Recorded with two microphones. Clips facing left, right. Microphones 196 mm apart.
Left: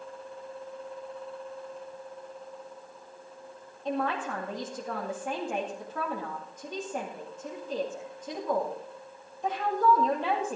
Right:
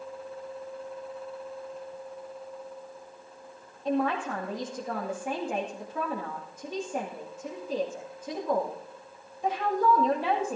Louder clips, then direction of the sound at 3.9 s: Right 3 dB; 10° right (ahead or behind).